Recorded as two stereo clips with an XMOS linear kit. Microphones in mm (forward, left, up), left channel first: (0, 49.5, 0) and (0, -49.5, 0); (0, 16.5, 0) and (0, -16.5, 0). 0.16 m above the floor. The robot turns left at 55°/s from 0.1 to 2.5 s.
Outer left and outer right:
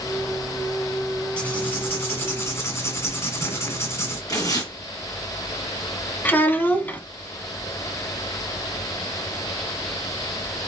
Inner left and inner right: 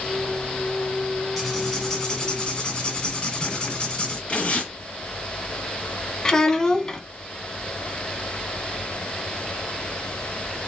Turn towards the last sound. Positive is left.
turn(degrees=20)  # may be behind; listen again after turning